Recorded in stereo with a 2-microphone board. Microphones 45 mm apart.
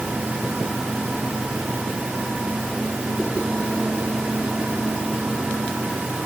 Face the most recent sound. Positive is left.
No sound to turn to.